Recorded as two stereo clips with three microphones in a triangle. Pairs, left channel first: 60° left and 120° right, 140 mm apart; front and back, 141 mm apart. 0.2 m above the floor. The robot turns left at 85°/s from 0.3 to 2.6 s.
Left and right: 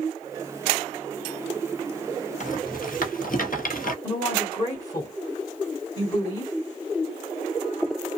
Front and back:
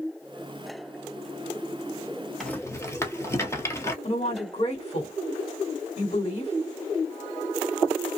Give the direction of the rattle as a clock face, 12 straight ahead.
9 o'clock.